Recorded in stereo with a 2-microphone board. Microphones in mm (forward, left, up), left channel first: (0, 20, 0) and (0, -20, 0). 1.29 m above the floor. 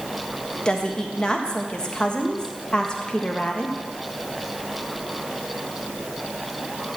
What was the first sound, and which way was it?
A woman speaking, 20° left (ahead or behind).